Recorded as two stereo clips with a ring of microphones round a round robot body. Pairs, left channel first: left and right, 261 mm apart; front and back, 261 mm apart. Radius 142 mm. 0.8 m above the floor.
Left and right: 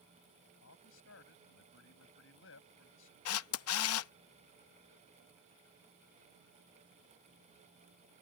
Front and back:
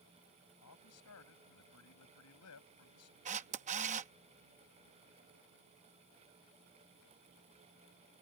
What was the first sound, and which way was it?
A man speaking, 40° left.